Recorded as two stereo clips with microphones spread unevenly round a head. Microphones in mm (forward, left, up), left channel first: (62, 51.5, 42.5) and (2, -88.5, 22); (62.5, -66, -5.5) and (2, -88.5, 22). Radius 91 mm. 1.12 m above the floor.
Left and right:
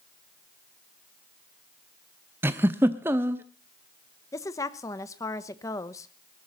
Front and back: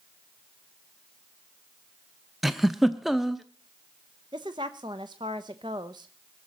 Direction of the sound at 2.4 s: 165° left.